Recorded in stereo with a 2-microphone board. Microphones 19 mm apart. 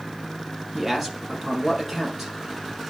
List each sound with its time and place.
0.7 s a man speaking: 10° right (ahead or behind), 3.5 m